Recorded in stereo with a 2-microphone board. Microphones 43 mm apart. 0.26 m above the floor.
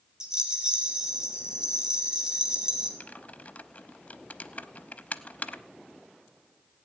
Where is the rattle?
15° right (ahead or behind), 3 m.